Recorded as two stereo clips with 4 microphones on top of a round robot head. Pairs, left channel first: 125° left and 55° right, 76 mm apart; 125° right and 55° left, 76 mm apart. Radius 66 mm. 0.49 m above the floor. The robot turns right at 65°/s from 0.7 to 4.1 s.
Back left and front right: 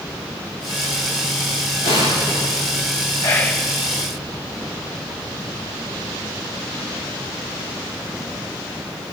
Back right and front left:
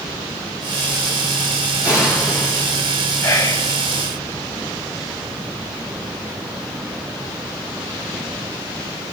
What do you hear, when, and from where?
1.8 s an explosion: 125° left, 8 m; by 2.6 s 175° left, 8 m
3.2 s whispering: 175° left, 2.5 m; by 3.7 s 155° right, 2.5 m